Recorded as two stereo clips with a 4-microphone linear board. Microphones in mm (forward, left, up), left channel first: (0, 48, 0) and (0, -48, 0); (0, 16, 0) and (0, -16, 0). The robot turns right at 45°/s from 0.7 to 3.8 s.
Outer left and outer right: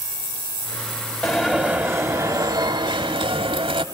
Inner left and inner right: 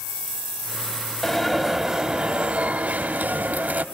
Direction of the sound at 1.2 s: 175° left.